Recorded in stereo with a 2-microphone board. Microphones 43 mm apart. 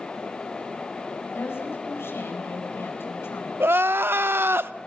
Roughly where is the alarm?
No alarm in this recording.